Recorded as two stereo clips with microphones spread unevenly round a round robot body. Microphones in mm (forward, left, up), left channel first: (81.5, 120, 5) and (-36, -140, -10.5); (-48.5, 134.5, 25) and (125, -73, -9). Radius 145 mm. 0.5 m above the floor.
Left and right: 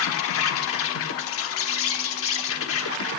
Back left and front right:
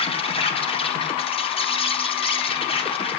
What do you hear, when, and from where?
0.0 s an insect: 60° left, 1.4 m